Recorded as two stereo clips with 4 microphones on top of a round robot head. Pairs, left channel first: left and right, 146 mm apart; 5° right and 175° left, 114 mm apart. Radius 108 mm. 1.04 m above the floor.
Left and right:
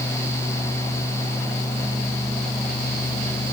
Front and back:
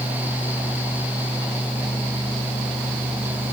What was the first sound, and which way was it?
Only background noise.